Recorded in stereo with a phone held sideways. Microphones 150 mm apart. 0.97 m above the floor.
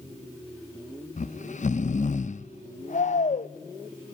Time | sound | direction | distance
1.2 | snoring | 55° left (ahead or behind) | 0.6 m